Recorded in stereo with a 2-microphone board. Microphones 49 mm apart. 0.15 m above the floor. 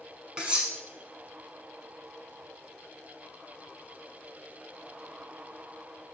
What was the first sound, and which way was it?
Cutlery clinking, 20° right (ahead or behind).